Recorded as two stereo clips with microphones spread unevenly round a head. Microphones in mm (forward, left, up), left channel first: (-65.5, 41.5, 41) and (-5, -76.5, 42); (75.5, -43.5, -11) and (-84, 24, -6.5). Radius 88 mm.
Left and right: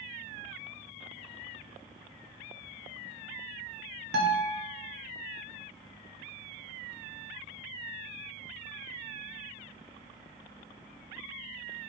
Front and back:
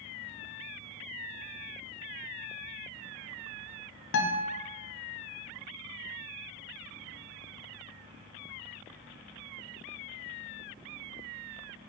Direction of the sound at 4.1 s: 40° right.